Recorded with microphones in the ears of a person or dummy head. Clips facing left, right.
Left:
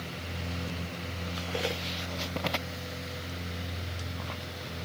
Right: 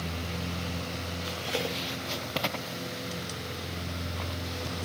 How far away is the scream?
No scream in this recording.